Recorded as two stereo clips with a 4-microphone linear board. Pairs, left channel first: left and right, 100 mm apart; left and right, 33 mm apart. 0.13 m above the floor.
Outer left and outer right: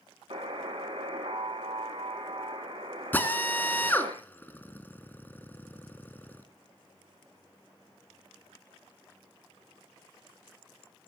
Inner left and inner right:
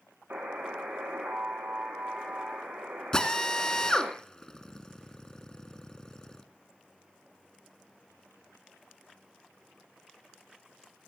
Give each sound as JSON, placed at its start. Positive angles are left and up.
{"t": 0.3, "sound": "a buzzer", "side_deg": -65, "distance_m": 3.0}
{"t": 3.1, "sound": "a drill", "side_deg": 20, "distance_m": 1.8}